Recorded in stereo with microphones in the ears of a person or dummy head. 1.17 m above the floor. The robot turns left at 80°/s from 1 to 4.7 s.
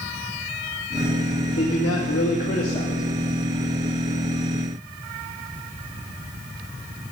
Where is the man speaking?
115° left, 2.5 m; by 3.0 s 5° right, 2.5 m.